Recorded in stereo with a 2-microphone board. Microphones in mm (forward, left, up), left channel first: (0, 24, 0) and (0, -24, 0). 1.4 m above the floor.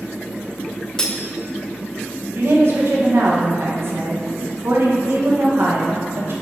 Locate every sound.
1.0 s cutlery clinking: 15° left (ahead or behind), 0.7 m
2.4 s a woman speaking: 55° right (ahead or behind), 1.3 m